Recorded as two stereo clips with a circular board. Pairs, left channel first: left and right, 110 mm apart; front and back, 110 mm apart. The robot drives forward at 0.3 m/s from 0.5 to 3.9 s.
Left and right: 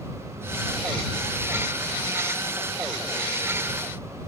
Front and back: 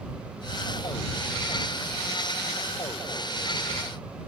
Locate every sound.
Only background noise.